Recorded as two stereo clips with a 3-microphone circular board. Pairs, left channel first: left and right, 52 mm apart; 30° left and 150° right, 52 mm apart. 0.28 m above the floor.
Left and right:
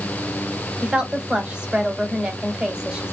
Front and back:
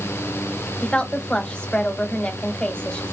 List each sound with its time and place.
0.8 s a woman speaking: 30° right, 1.6 m